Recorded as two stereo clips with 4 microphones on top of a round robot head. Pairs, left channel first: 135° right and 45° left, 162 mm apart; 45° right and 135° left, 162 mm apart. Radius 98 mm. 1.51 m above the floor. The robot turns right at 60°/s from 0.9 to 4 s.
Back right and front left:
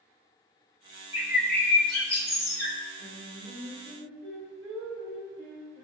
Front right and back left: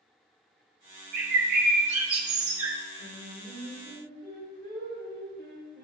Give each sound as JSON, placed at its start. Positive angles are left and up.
{"t": 1.1, "sound": "a bird", "azimuth_deg": 120, "distance_m": 0.8}
{"t": 3.0, "sound": "singing", "azimuth_deg": 35, "distance_m": 3.0}